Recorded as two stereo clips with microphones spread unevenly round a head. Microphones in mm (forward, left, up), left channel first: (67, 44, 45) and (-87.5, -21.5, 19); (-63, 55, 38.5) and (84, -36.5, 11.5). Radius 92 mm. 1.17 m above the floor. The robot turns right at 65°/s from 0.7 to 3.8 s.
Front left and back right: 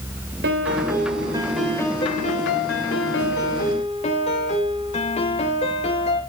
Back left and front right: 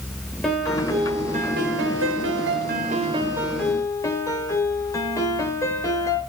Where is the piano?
125° right, 3 m; by 6.2 s 75° left, 3 m.